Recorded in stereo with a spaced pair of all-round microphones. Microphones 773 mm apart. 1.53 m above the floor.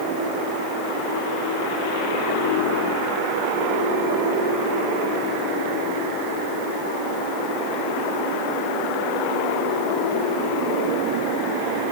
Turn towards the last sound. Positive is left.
No sound to turn to.